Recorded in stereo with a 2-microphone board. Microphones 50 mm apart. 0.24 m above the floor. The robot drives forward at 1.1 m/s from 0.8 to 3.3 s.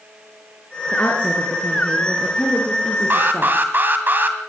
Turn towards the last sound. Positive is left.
turn(degrees=-40)  # may be behind; listen again after turning